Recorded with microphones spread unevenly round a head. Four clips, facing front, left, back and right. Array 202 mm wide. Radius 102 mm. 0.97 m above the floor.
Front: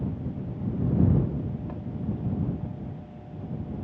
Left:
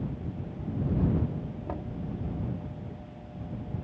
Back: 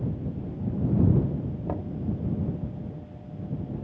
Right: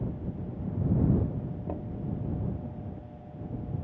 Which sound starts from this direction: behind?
Knocking, at 1.7 s.